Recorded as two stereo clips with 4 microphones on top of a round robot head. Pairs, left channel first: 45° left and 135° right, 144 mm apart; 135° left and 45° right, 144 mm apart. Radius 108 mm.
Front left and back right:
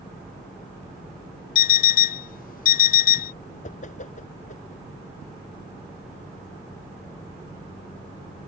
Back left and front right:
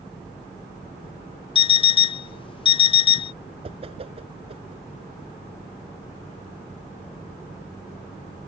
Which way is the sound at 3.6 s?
5° left.